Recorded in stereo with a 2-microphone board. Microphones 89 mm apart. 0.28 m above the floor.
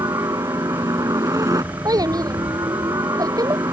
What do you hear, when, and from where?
0.0 s a helicopter: 40° right (ahead or behind)
1.9 s a child speaking: 45° right (ahead or behind)